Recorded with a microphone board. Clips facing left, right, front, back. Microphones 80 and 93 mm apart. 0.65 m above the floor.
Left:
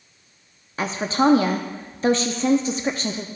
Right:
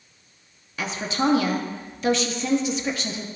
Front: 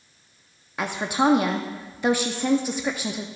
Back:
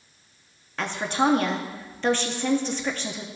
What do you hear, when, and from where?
0.8 s a woman speaking: 70° left, 0.6 m